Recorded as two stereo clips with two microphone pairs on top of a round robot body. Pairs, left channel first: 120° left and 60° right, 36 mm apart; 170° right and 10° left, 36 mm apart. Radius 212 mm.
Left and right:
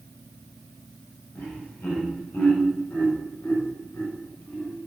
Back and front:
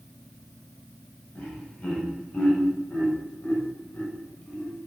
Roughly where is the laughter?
Behind left.